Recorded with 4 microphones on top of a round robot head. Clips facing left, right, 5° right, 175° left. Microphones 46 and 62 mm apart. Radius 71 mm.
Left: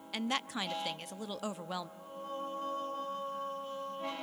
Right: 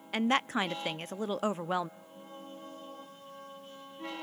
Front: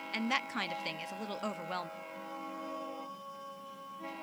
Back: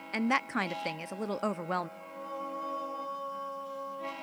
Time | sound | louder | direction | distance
0.1 | a woman speaking | right 7 dB, back 5 dB | 135° right | 0.8 m
2.0 | singing | left 7 dB, back 4 dB | 130° left | 3.5 m